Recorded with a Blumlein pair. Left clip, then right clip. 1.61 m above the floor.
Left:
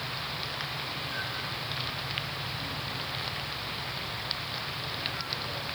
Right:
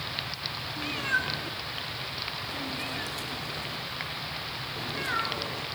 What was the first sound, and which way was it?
A cat meowing, 50° right.